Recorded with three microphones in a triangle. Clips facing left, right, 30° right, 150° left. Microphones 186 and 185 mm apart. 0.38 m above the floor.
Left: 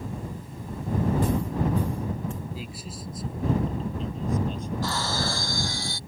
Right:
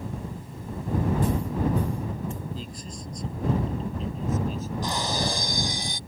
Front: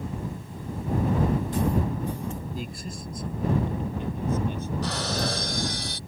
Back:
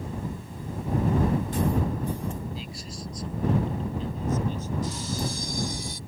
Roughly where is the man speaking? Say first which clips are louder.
Even, front 3 dB; ahead.